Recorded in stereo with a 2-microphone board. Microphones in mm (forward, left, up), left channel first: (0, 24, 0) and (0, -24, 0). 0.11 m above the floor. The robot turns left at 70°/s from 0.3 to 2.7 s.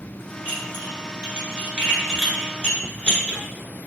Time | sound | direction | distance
0.5 | dishes clattering | 30° right (ahead or behind) | 1.1 m